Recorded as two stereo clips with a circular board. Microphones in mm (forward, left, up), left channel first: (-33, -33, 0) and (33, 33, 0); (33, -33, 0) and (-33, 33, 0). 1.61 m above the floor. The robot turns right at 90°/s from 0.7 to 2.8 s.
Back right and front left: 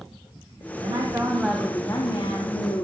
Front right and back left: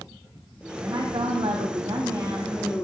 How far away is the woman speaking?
About 1.1 m.